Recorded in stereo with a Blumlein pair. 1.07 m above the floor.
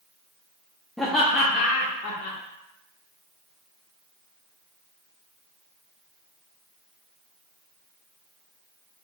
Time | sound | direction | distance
1.0 | laughter | 5° left | 0.6 m